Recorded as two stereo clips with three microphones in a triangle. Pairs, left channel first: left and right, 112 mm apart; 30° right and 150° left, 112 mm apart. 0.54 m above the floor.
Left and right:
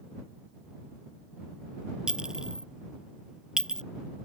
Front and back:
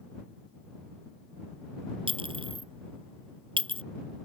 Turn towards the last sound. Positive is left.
turn(degrees=-175)